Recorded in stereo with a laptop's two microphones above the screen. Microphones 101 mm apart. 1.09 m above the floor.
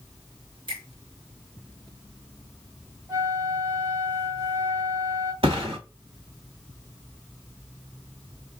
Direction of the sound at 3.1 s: 35° right (ahead or behind).